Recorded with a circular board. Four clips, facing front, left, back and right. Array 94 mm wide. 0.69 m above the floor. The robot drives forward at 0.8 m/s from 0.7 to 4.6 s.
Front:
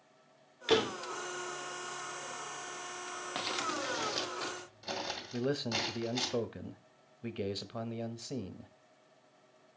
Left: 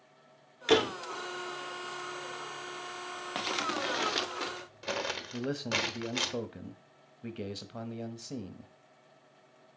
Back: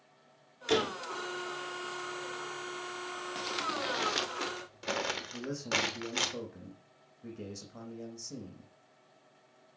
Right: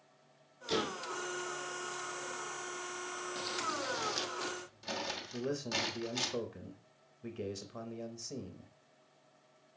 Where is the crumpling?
75° left, 0.7 m; by 6.3 s 140° left, 1.0 m.